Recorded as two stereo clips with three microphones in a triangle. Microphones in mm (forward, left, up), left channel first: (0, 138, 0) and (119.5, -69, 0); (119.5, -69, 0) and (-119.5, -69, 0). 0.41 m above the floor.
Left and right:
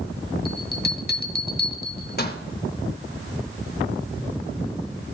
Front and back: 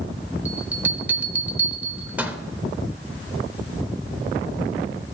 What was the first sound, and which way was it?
A bell, 100° left.